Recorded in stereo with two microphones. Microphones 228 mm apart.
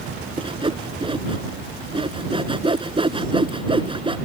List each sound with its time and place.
0.4 s sawing: 20° right (ahead or behind)